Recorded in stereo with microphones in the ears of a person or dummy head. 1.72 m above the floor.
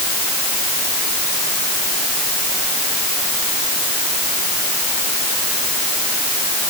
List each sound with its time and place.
Only background noise.